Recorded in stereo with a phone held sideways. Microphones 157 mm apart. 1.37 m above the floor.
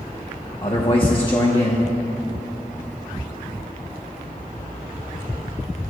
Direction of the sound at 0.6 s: 30° left (ahead or behind).